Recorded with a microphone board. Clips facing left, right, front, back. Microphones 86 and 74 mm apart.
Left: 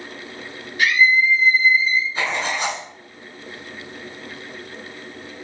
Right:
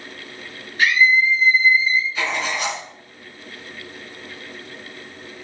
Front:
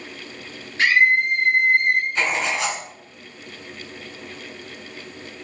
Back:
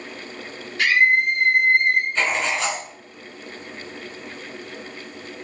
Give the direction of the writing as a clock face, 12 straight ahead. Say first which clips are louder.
Left 1 dB, even; 9 o'clock.